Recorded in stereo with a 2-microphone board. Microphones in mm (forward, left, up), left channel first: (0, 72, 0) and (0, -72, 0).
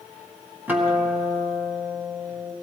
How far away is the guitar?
About 1.9 m.